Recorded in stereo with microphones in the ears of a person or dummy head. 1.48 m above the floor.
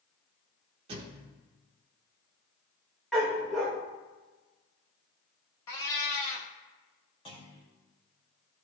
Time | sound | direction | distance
0.9 | a thud | 20° right (ahead or behind) | 1.2 m
3.1 | a dog barking | centre (ahead or behind) | 1.6 m
5.7 | a cat meowing | 15° left (ahead or behind) | 0.6 m
7.2 | a clunk | 25° left (ahead or behind) | 2.5 m